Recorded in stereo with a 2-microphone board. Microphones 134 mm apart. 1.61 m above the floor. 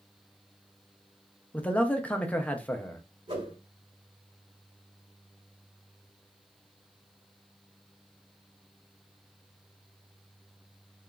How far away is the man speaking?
About 0.5 m.